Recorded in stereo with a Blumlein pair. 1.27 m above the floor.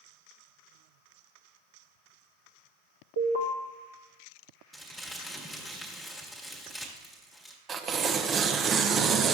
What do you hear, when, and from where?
3.2 s an alarm: 65° right, 1.2 m
4.7 s crumpling: straight ahead, 1.5 m
7.7 s tearing paper: 25° right, 0.6 m